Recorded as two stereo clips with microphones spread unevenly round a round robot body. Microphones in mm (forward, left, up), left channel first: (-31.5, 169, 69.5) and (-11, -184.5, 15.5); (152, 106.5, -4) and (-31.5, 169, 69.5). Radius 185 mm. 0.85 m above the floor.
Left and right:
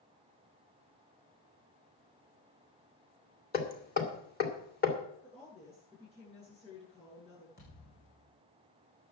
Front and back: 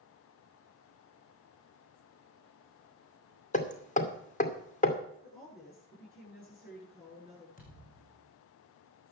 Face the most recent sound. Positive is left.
turn(degrees=30)